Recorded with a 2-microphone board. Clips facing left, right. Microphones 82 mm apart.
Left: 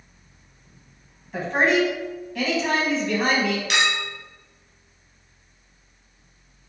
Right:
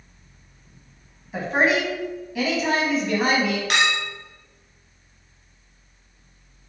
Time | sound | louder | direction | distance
1.3 | a woman speaking | left 1 dB | 5° right (ahead or behind) | 1.3 m
3.7 | a clink | right 1 dB | 45° right (ahead or behind) | 0.9 m